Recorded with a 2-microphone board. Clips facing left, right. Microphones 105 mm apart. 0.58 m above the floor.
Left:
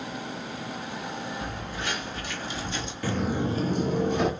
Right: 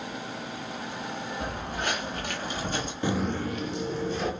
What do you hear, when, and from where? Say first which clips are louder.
1.4 s footsteps: right 2 dB; 50° right (ahead or behind), 2.5 m; by 2.9 s 45° right (ahead or behind), 1.3 m
3.0 s footsteps: left 2 dB; 20° right (ahead or behind), 0.6 m; by 4.3 s 65° left (ahead or behind), 1.3 m